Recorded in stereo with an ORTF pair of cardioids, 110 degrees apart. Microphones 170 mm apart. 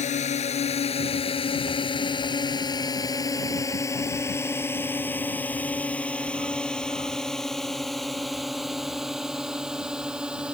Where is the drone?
45° left; by 10.6 s 5° right.